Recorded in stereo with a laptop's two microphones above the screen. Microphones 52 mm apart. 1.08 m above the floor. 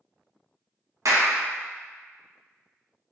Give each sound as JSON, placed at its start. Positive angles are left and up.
{"t": 1.1, "sound": "a clap", "side_deg": -75, "distance_m": 0.7}